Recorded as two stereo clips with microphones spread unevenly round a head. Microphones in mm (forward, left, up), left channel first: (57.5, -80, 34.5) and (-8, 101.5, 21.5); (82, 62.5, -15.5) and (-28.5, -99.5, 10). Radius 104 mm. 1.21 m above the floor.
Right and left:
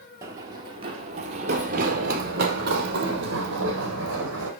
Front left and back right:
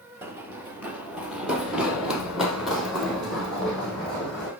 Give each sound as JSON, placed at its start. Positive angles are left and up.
{"t": 0.2, "sound": "running footsteps", "azimuth_deg": -175, "distance_m": 1.3}